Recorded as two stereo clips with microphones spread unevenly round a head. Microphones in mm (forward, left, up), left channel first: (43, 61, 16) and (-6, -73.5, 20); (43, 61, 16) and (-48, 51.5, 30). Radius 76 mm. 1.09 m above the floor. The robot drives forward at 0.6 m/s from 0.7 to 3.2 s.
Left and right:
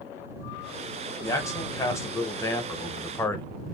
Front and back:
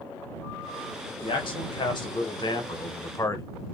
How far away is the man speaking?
About 1.8 m.